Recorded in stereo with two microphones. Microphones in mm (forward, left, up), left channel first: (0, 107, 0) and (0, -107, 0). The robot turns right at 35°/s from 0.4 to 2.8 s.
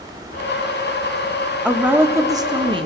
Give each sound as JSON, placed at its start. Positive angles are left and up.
{"t": 1.6, "sound": "a woman speaking", "azimuth_deg": -170, "distance_m": 1.3}